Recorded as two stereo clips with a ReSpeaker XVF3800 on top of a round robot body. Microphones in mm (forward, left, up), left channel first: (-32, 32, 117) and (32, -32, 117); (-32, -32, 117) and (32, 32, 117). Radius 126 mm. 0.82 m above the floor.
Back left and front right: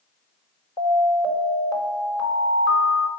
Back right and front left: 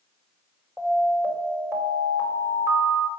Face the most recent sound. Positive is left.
turn(degrees=105)